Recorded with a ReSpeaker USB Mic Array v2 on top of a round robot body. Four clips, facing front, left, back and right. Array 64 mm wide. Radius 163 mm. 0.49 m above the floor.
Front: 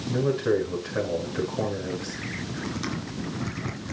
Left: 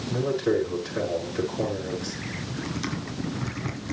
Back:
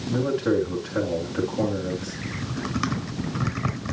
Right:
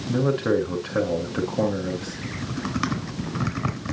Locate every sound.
0.1 s a man speaking: 95° right, 8.5 m
2.2 s typing on a keyboard: 130° right, 3.5 m